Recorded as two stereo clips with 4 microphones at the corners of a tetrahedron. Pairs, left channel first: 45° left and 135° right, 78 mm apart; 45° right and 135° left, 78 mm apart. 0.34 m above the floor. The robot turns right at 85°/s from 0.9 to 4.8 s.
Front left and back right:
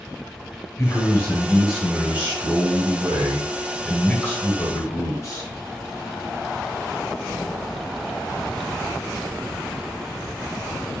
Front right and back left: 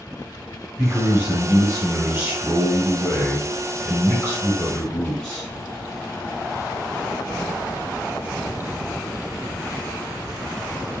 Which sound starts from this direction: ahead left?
A man speaking, at 0.8 s.